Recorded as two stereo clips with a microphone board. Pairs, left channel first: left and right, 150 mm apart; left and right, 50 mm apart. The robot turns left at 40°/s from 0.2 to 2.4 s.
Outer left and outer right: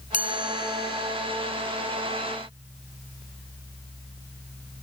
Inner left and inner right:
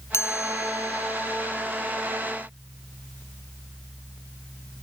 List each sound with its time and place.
0.1 s a chime: 115° left; by 1.7 s 55° left